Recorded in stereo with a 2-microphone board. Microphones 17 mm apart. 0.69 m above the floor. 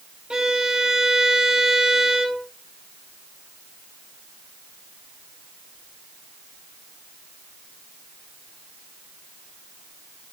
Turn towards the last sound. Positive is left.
turn(degrees=-60)  # may be behind; listen again after turning